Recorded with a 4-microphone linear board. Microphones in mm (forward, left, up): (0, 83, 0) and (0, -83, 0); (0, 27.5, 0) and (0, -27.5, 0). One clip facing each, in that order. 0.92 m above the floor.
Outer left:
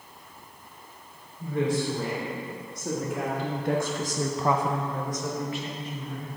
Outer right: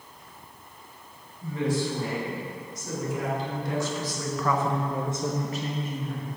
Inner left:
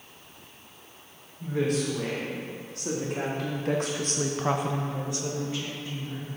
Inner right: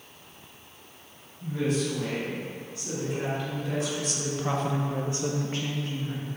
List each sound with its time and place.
1.4 s a woman speaking: 65° left (ahead or behind), 3 m; by 6.3 s 50° right (ahead or behind), 1.6 m